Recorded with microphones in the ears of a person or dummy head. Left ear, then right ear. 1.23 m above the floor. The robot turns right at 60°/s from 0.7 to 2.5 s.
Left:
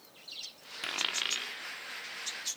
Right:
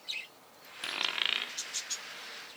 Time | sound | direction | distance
0.8 | a dropped coin | 5° left (ahead or behind) | 1.3 m